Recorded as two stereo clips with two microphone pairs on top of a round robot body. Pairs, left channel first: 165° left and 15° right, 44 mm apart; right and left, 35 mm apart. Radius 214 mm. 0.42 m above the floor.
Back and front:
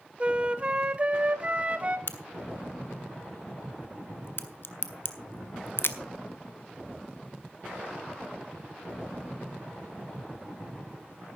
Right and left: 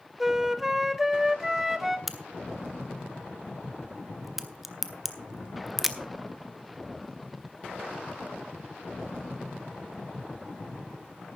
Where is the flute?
5° right, 1.4 m.